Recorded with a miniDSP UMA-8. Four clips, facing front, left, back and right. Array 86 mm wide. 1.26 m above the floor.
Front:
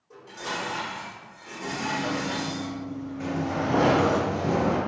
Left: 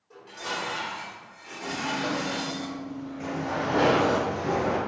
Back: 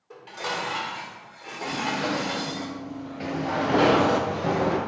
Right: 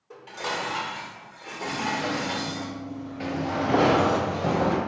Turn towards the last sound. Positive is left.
turn(degrees=-130)